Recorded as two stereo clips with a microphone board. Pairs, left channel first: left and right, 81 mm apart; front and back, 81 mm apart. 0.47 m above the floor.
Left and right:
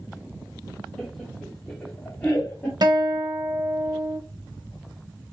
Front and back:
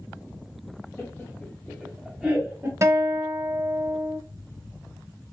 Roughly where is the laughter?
Ahead.